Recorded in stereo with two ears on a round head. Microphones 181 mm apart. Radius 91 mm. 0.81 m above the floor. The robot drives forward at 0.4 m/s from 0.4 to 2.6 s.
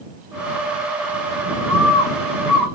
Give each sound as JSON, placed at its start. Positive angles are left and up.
{"t": 1.7, "sound": "a bird", "side_deg": 15, "distance_m": 1.4}